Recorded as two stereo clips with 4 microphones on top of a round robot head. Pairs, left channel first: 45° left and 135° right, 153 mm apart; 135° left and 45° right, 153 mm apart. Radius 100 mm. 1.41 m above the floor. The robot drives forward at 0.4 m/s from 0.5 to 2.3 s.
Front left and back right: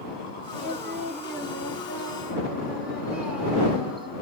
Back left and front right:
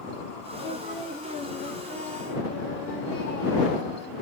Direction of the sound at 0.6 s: 135° left.